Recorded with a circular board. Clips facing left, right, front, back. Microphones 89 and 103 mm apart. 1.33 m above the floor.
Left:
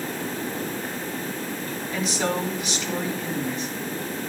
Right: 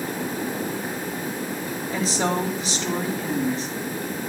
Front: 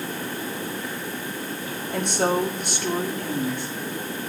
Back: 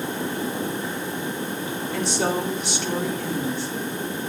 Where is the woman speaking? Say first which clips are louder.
Right 2 dB, front 2 dB; 35° right, 4 m.